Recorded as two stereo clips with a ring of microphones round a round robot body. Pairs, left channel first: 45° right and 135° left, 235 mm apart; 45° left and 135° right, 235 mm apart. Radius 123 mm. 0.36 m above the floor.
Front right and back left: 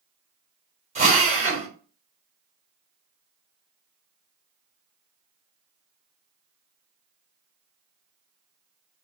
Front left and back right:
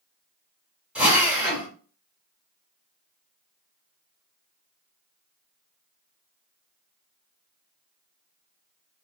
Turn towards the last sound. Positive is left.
turn(degrees=145)